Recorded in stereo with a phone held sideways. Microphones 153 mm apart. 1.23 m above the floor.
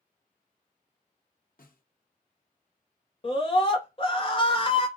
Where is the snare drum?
70° left (ahead or behind), 0.9 m.